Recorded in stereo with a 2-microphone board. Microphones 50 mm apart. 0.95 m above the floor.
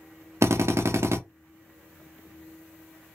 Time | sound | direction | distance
0.4 | a drill | 65° right (ahead or behind) | 0.6 m